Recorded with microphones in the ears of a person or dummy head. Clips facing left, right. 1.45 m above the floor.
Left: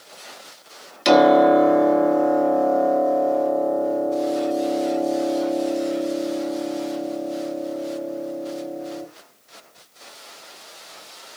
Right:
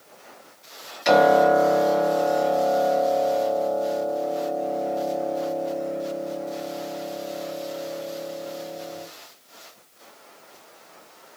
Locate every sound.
1.1 s a piano: 50° left (ahead or behind), 1.6 m